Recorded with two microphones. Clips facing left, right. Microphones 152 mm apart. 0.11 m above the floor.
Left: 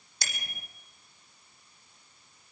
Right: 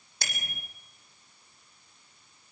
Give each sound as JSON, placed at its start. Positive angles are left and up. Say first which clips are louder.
{"t": 0.2, "sound": "a bicycle bell", "louder": "right 2 dB", "side_deg": -55, "distance_m": 3.5}